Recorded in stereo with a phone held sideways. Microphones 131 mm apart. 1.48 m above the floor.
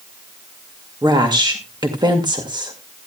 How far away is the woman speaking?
About 2 m.